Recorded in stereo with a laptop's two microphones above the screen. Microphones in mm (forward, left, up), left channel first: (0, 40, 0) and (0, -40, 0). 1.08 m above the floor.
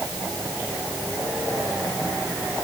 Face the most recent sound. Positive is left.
No sound to turn to.